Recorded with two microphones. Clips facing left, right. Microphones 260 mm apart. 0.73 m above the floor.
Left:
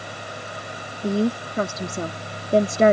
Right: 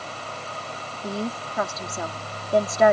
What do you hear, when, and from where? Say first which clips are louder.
1.0 s a woman speaking: left 8 dB; 30° left (ahead or behind)